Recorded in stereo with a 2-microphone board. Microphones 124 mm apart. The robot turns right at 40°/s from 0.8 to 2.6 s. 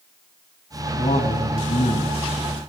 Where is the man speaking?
65° left, 3 m; by 2.6 s 130° left, 3 m.